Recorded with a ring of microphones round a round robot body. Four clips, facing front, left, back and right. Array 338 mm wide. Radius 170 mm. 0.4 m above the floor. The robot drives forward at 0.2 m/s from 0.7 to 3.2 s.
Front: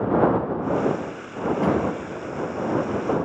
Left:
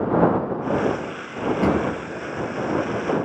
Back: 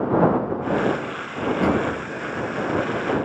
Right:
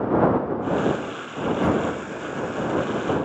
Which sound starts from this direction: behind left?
A drawer, at 1.6 s.